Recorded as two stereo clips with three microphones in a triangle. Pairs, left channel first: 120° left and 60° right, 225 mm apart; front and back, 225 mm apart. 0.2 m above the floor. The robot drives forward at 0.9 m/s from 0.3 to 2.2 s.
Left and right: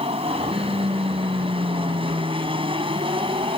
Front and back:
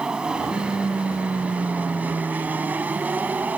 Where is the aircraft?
100° right; by 3.6 s 105° right.